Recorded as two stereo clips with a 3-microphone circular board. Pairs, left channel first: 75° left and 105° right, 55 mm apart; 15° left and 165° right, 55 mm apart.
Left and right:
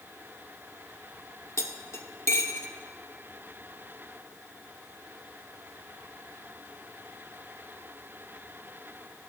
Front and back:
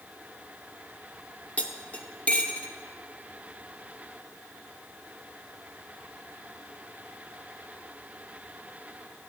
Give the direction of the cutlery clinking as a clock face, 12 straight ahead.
9 o'clock.